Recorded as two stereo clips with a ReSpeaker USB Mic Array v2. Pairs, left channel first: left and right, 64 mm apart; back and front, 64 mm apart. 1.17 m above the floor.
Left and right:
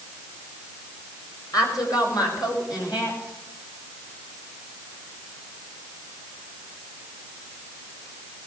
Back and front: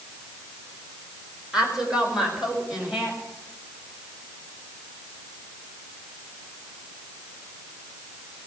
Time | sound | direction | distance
1.5 | a woman speaking | 80° left | 4 m